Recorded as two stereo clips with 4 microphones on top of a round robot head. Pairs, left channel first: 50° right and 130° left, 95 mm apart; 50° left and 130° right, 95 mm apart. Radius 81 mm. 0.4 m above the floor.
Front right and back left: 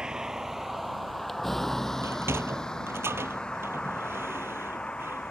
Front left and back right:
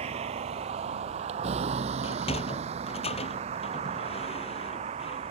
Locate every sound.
0.0 s a vehicle: 145° right; by 5.3 s 130° right
2.0 s a sliding door: 65° left